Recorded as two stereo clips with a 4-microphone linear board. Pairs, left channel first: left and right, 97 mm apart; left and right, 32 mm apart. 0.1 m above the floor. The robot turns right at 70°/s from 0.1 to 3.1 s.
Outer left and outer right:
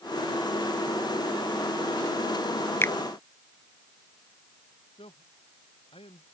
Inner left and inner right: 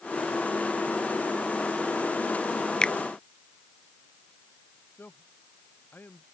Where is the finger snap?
25° left (ahead or behind); by 2.9 s 30° left (ahead or behind).